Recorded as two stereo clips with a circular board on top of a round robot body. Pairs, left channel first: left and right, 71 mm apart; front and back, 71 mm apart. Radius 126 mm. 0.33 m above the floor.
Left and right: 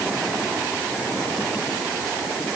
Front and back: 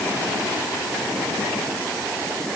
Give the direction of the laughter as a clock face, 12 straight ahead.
No laughter in this recording.